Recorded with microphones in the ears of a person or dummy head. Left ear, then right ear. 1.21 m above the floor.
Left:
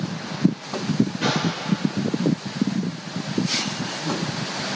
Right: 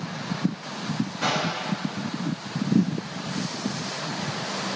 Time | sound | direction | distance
1.2 | a whoosh | 5° left (ahead or behind) | 2.5 m